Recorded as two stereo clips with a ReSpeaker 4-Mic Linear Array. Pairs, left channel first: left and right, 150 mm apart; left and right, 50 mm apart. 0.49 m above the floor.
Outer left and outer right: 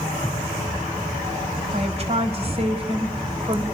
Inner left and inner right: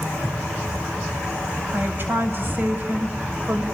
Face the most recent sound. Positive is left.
turn(degrees=-35)  # may be behind; listen again after turning